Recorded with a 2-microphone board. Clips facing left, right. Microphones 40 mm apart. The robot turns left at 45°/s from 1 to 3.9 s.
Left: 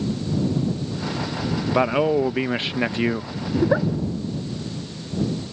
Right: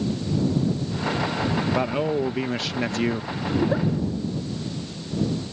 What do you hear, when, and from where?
1.7 s a man speaking: 100° left; by 3.3 s 25° left
3.5 s a giggle: 25° left (ahead or behind); by 3.9 s 40° left (ahead or behind)